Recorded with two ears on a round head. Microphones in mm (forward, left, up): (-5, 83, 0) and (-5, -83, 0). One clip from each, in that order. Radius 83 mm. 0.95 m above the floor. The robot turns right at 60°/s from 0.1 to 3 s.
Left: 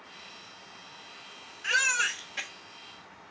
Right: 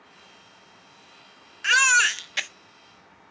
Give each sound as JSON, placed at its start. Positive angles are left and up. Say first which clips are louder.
{"t": 1.6, "sound": "a baby crying", "louder": "right 8 dB", "azimuth_deg": -135, "distance_m": 0.5}